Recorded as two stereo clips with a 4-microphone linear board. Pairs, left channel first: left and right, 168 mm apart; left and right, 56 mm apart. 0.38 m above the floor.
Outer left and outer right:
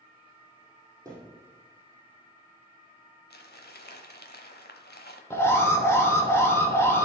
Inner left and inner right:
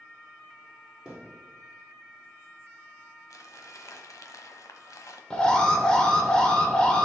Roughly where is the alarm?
Centre.